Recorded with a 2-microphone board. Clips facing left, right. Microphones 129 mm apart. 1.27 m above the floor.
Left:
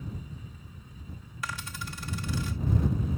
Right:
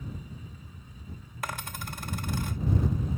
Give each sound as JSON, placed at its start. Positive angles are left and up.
{"t": 1.4, "sound": "a dropped coin", "side_deg": -50}